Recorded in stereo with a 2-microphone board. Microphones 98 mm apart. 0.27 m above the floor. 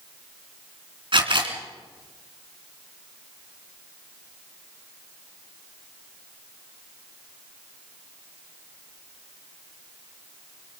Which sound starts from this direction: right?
A camera shutter, at 1.1 s.